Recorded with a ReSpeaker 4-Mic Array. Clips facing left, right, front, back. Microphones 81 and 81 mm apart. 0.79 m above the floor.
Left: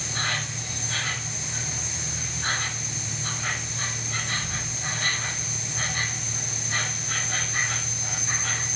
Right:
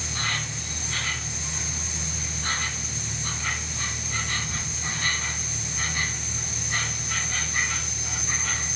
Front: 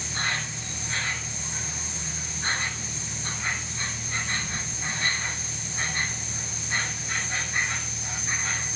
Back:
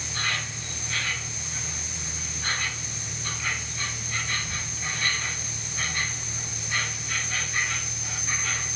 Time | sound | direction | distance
0.0 | an insect | 65° left | 8 m